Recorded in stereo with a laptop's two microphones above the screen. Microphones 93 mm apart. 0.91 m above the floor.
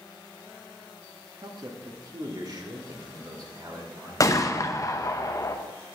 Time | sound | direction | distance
1.4 | a man speaking | 50° right (ahead or behind) | 1.6 m
4.2 | a gunshot | 35° left (ahead or behind) | 0.9 m